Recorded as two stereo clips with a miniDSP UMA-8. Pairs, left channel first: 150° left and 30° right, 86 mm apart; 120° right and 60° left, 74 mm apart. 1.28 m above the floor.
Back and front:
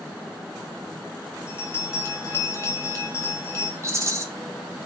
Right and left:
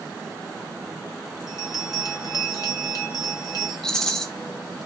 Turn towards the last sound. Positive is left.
turn(degrees=-45)